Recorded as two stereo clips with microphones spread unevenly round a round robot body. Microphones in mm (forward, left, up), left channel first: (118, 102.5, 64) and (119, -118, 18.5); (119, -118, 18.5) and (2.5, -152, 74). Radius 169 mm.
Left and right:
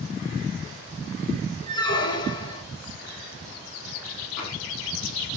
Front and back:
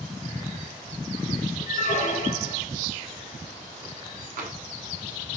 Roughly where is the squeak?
Ahead.